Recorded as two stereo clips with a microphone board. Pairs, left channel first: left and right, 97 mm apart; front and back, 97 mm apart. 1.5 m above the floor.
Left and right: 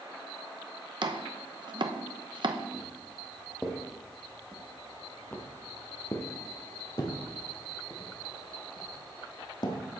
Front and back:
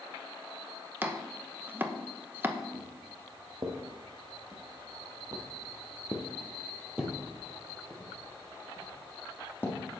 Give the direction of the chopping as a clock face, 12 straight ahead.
4 o'clock.